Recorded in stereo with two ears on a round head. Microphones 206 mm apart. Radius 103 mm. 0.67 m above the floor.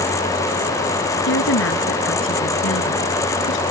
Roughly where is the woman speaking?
Left.